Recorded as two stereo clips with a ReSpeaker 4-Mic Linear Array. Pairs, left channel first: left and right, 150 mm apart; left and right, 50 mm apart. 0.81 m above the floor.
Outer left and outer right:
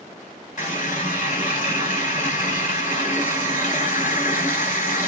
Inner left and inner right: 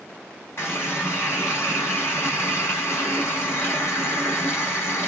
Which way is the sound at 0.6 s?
60° left (ahead or behind).